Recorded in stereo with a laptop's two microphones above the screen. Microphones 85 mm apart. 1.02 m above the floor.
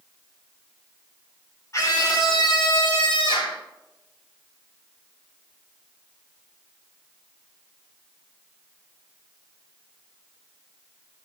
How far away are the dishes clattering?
No dishes clattering in this recording.